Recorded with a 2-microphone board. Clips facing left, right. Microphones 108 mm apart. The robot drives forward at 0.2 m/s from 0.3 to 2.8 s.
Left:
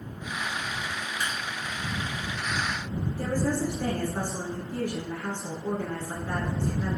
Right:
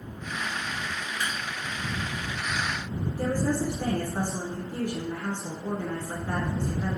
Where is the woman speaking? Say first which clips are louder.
Right 1 dB; 20° right (ahead or behind), 1.2 m.